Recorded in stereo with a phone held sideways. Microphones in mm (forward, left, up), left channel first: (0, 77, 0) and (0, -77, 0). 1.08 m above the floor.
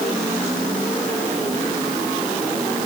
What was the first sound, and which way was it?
Only background noise.